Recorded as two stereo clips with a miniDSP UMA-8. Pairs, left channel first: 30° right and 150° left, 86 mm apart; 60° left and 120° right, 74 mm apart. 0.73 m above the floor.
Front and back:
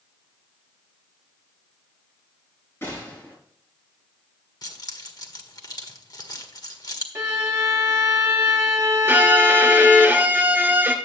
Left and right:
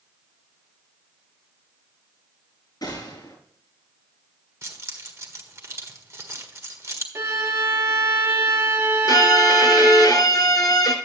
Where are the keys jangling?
70° right, 1.6 m.